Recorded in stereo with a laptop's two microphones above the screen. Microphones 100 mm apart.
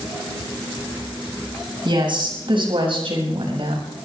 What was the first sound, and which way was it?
A woman speaking, 55° right (ahead or behind).